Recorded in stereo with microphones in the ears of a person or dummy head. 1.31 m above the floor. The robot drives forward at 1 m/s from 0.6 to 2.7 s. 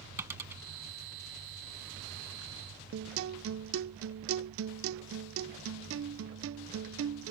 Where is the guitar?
65° right (ahead or behind).